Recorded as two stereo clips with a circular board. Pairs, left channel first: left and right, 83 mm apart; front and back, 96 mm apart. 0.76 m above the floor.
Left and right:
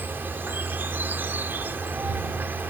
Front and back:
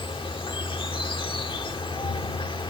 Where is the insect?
25° right.